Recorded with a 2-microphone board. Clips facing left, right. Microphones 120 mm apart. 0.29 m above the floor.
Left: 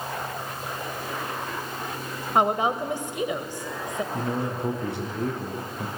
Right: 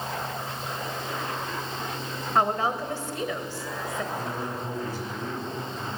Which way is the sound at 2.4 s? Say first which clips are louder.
Left 2 dB; 20° left (ahead or behind).